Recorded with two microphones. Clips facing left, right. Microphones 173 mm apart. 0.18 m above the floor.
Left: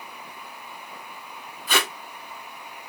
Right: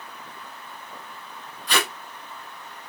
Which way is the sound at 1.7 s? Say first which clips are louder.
Even; 5° left (ahead or behind).